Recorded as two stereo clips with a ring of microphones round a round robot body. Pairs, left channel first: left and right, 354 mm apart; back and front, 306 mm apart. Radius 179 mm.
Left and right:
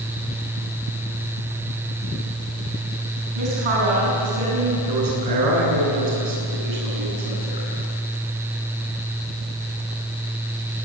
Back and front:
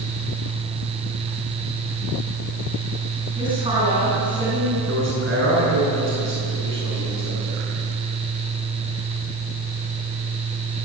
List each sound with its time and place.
3.4 s a woman speaking: 80° right, 8 m
4.9 s a man speaking: 60° right, 9.5 m